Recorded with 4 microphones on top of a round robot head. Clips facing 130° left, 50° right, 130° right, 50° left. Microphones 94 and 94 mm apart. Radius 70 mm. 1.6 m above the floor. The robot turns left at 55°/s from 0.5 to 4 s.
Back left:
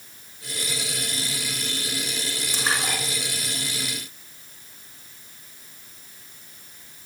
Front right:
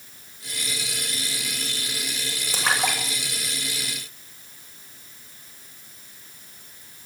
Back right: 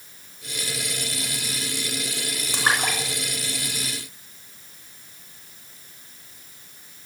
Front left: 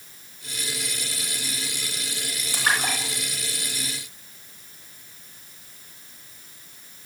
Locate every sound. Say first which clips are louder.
2.5 s a splash: front right 3 dB, back right 1 dB; 60° right, 9 m; by 4.5 s 140° right, 9 m